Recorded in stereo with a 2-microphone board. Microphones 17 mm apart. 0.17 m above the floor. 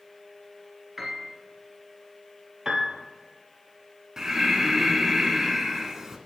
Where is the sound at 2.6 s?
35° right (ahead or behind), 1.1 m.